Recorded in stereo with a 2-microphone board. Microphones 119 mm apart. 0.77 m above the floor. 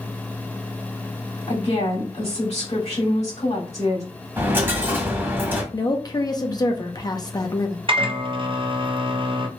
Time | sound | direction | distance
1.5 | a woman speaking | 65° left (ahead or behind) | 2.0 m
4.4 | a dropped coin | 20° right (ahead or behind) | 1.4 m
5.7 | a woman speaking | 35° left (ahead or behind) | 0.8 m
7.9 | a microwave | 45° right (ahead or behind) | 0.6 m